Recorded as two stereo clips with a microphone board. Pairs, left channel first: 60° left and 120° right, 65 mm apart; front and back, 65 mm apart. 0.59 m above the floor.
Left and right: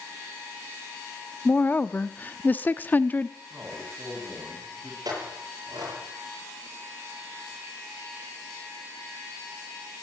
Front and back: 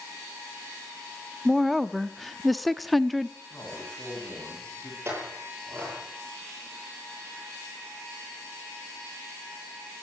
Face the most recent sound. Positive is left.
turn(degrees=-130)